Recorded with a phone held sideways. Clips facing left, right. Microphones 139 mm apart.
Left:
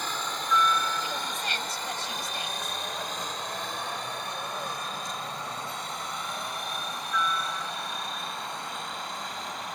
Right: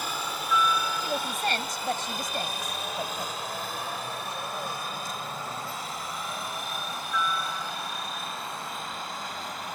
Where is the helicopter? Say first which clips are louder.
Even; 10° right (ahead or behind); by 9.8 s centre (ahead or behind).